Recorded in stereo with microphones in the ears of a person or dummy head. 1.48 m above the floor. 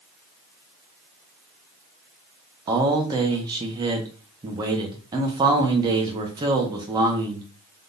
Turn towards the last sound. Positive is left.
turn(degrees=-20)  # may be behind; listen again after turning